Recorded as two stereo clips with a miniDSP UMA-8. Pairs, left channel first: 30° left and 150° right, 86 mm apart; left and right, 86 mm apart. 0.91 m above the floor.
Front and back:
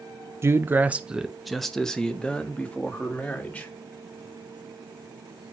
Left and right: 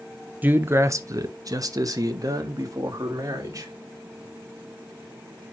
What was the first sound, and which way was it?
A man speaking, 140° right.